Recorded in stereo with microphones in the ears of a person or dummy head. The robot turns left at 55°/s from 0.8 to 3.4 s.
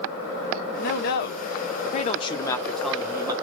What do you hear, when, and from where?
0.8 s a man speaking: 115° left, 0.9 m; by 3.3 s 25° right, 0.9 m